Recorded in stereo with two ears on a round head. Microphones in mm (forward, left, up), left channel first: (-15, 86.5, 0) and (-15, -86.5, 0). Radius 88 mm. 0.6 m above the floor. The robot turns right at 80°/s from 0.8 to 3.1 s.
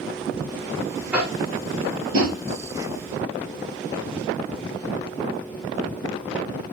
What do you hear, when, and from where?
1.1 s tapping: 5° right (ahead or behind), 3.5 m; by 2.4 s 70° right (ahead or behind), 3.5 m